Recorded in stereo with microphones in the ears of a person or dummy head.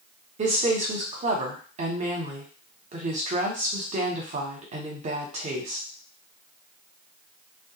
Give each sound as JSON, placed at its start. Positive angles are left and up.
{"t": 0.4, "sound": "a woman speaking", "side_deg": -40, "distance_m": 0.8}